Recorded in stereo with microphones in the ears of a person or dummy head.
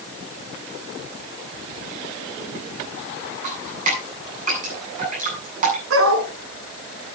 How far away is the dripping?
About 8.5 m.